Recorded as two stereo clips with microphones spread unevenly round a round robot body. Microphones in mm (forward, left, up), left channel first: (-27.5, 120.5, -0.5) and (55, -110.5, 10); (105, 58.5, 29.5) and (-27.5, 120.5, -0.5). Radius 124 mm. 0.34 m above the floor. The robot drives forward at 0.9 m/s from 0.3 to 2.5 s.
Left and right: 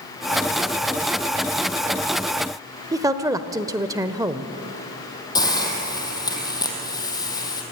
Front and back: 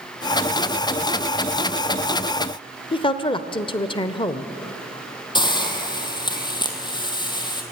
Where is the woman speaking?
10° right, 0.8 m.